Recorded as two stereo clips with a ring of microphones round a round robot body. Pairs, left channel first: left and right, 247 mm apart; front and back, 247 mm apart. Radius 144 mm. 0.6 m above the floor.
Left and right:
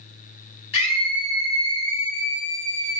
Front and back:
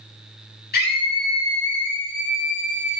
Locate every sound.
0.7 s a scream: 50° left, 6 m; by 3.0 s 60° left, 4.5 m